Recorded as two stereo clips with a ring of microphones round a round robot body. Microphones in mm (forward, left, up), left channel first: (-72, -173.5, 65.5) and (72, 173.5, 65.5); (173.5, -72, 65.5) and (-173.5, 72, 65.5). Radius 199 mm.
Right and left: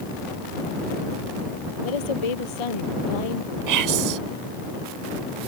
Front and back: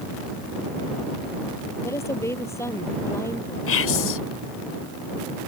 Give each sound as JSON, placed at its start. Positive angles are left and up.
{"t": 1.8, "sound": "a woman speaking", "azimuth_deg": -105}
{"t": 3.7, "sound": "whispering", "azimuth_deg": 30}